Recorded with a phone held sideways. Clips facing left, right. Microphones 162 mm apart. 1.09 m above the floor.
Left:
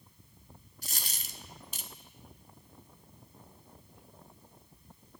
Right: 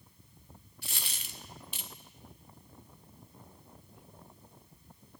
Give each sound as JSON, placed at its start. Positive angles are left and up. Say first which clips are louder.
{"t": 0.8, "sound": "a dropped coin", "louder": "even", "side_deg": 40, "distance_m": 0.5}